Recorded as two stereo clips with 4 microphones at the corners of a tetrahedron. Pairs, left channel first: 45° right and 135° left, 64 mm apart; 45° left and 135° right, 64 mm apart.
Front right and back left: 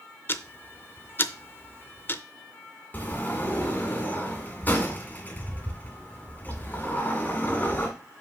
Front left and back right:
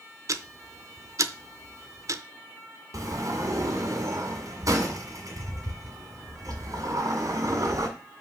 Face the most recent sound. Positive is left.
turn(degrees=-105)